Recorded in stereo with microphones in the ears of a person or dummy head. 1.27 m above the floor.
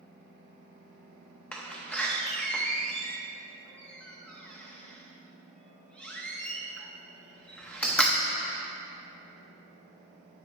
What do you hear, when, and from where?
1.5 s a door slam: 10° left (ahead or behind), 0.8 m